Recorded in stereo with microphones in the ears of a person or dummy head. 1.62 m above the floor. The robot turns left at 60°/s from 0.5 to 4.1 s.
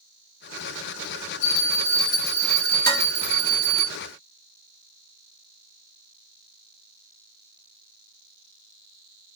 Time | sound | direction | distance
1.4 | a bell | 65° left | 2.5 m
2.9 | dishes clattering | 10° left (ahead or behind) | 1.9 m